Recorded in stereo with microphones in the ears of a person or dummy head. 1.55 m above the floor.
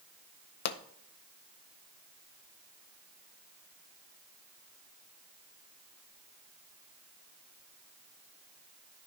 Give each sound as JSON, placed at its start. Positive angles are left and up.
{"t": 0.7, "sound": "a pop", "side_deg": 60, "distance_m": 0.6}